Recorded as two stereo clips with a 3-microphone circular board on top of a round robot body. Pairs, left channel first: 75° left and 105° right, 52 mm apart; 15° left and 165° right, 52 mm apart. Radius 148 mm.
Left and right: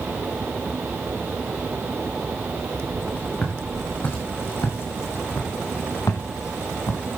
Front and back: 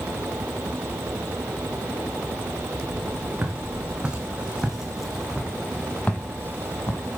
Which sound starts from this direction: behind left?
Footsteps, at 3.4 s.